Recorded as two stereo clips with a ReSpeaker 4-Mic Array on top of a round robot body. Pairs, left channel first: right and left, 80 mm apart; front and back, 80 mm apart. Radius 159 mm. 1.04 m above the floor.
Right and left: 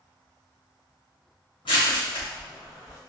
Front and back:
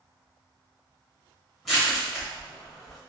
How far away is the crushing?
About 1.3 m.